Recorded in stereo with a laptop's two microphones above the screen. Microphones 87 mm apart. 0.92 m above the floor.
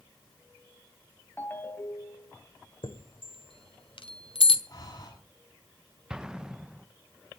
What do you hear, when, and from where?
1.4 s a ringtone: 20° left (ahead or behind), 2 m
2.8 s a chime: 85° left, 1.9 m
4.7 s breathing: 45° left (ahead or behind), 9.5 m
6.1 s an explosion: 10° right (ahead or behind), 0.7 m